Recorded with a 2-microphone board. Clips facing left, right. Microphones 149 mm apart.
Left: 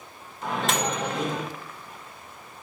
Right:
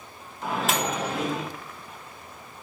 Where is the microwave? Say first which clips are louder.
Even; 5° right (ahead or behind), 0.5 m.